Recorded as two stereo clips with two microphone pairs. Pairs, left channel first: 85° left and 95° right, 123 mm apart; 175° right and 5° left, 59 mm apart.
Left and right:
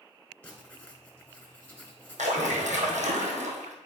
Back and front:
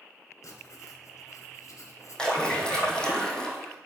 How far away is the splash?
About 2 m.